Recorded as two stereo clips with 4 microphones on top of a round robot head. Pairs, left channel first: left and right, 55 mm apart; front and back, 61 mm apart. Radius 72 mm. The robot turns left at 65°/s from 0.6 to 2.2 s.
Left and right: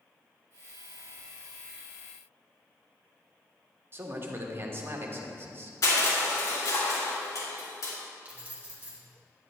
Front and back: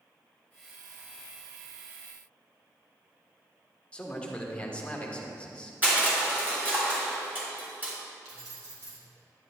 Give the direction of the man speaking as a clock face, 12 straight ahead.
2 o'clock.